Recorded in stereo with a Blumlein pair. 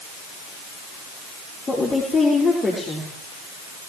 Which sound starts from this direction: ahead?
A woman speaking, at 1.7 s.